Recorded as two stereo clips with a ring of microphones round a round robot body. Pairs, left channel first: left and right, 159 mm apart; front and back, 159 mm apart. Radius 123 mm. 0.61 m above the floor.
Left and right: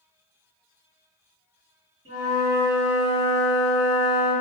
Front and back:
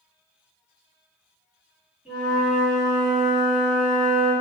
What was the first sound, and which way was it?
A flute, 95° right.